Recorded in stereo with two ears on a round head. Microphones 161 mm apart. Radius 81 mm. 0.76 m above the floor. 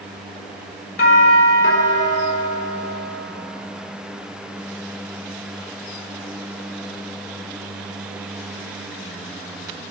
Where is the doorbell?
60° left (ahead or behind), 3.5 m.